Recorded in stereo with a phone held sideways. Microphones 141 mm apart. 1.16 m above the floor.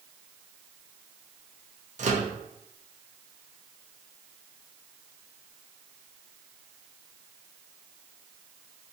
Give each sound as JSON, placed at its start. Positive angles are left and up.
{"t": 2.0, "sound": "a microwave", "side_deg": -55, "distance_m": 0.5}